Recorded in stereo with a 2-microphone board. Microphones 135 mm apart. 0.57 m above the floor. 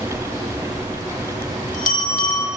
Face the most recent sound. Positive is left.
turn(degrees=75)  # may be behind; listen again after turning